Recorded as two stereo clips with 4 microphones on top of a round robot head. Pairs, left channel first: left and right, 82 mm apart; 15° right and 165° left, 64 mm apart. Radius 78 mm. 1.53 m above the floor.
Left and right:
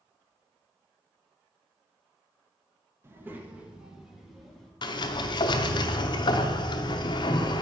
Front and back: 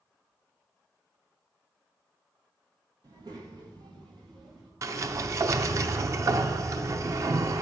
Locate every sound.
3.0 s a child speaking: 150° right, 1.7 m; by 4.7 s 175° left, 2.5 m
4.8 s a sliding door: 125° left, 0.7 m